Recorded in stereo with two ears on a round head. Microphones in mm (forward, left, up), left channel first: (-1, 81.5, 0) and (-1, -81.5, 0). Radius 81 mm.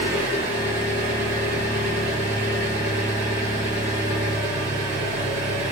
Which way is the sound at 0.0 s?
40° right (ahead or behind).